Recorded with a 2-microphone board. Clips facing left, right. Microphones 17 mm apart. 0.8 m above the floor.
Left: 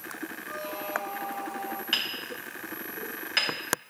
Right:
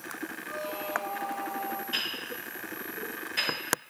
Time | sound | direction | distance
0.5 | a squeak | centre (ahead or behind) | 0.5 m
1.9 | hammering | 50° left (ahead or behind) | 3 m